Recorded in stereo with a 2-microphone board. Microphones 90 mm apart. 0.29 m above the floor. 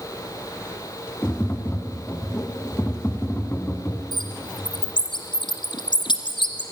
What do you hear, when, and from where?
1.2 s tapping: 25° left (ahead or behind), 2 m
4.1 s a bird: 65° left (ahead or behind), 2 m